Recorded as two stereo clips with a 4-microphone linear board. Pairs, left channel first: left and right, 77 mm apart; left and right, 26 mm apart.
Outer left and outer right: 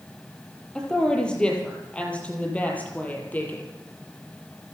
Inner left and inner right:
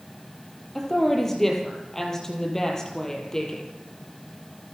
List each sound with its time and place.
0.8 s a woman speaking: 10° left (ahead or behind), 7 m; by 3.7 s 25° left (ahead or behind), 7.5 m